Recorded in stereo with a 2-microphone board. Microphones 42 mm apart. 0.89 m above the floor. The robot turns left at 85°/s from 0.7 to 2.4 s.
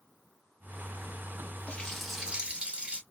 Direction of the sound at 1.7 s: 35° left.